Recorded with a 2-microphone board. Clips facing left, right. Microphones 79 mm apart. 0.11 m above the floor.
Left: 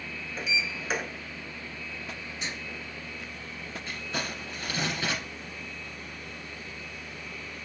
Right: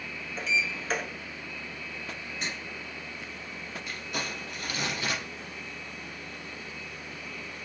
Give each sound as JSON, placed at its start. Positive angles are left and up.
{"t": 0.4, "sound": "a sliding door", "side_deg": 10, "distance_m": 0.7}
{"t": 2.4, "sound": "writing", "side_deg": -45, "distance_m": 1.1}
{"t": 3.9, "sound": "crumpling", "side_deg": 35, "distance_m": 2.0}